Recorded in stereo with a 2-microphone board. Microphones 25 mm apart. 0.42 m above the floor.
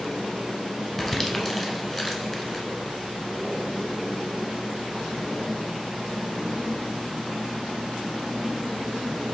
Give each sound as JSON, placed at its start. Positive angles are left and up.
{"t": 1.0, "sound": "crumpling", "side_deg": 10, "distance_m": 0.8}